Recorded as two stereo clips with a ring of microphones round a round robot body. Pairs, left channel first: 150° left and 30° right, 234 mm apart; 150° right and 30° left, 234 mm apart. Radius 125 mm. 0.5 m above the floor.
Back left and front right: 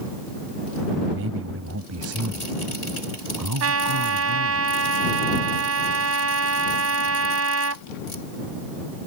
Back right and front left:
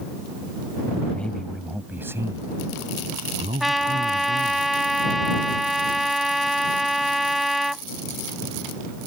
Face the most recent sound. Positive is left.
turn(degrees=-60)